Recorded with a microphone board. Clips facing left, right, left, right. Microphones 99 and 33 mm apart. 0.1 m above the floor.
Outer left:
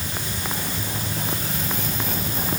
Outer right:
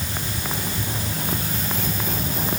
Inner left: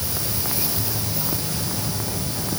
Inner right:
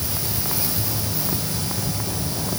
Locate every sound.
Only background noise.